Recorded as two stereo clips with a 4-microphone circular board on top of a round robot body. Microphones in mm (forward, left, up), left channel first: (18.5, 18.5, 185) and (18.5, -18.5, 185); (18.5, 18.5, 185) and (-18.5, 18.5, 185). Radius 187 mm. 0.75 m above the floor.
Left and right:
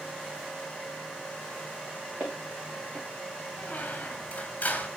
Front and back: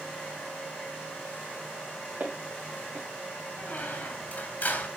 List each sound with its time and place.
2.2 s footsteps: 135° right, 3 m
3.6 s a squeak: 40° left, 1.5 m